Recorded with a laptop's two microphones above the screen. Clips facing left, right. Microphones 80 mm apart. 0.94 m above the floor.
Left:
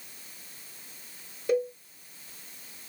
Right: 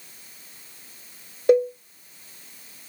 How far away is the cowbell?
About 1.3 m.